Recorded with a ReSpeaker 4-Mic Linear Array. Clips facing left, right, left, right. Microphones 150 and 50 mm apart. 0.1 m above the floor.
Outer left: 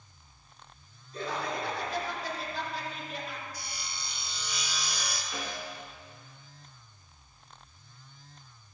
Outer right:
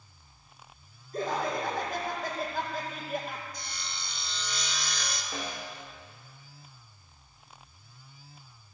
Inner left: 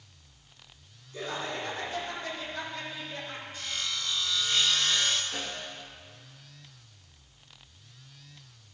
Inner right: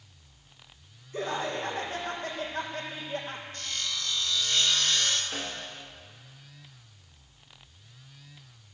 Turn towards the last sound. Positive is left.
turn(degrees=-30)  # may be behind; listen again after turning